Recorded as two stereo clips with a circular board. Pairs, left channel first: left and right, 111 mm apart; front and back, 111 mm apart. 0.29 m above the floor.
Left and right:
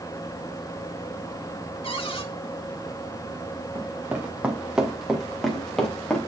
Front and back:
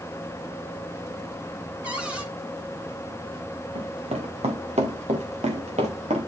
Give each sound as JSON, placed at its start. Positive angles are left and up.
{"t": 1.8, "sound": "a cupboard door", "azimuth_deg": 105, "distance_m": 2.5}
{"t": 3.8, "sound": "running footsteps", "azimuth_deg": -155, "distance_m": 1.9}